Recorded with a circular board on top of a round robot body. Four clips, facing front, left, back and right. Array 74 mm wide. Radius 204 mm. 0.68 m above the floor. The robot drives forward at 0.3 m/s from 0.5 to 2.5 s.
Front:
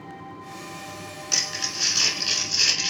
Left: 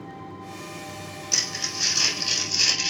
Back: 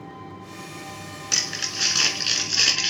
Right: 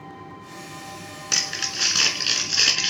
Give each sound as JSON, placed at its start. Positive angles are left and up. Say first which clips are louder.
{"t": 1.3, "sound": "crumpling", "louder": "right 4 dB, back 1 dB", "azimuth_deg": -115, "distance_m": 1.4}